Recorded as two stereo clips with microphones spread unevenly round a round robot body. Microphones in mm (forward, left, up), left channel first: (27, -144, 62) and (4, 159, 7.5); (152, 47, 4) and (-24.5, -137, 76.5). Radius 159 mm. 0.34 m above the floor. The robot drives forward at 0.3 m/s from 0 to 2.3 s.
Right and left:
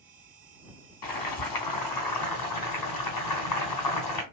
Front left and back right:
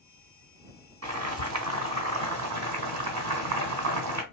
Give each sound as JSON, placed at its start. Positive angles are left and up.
{"t": 1.0, "sound": "boiling", "azimuth_deg": -100, "distance_m": 2.0}